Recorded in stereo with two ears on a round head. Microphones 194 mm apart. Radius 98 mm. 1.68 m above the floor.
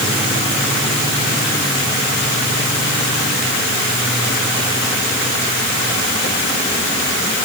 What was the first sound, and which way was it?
Only background noise.